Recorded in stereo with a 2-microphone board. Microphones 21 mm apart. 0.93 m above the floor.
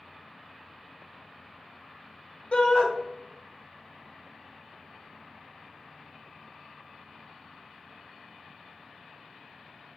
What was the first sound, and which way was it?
A shout, 55° left (ahead or behind).